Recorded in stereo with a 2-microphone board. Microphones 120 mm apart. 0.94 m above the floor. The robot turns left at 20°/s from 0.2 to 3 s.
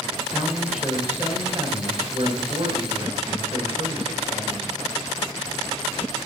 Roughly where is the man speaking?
Ahead.